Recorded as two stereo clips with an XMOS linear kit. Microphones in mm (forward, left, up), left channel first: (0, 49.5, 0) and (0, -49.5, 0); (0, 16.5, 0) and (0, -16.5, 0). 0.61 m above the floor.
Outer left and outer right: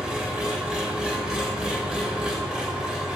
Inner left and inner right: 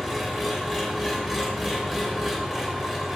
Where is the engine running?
10° right (ahead or behind), 1.2 m.